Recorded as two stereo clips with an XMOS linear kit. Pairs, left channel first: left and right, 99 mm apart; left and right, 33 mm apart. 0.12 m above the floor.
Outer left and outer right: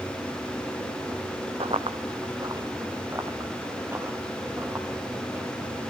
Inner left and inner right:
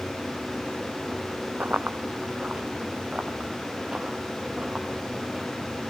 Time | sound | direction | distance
1.6 | running footsteps | 70° right (ahead or behind) | 0.7 m